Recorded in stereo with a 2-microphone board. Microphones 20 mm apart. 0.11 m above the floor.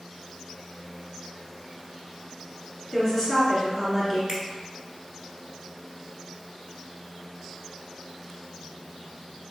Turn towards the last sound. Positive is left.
turn(degrees=-25)  # may be behind; listen again after turning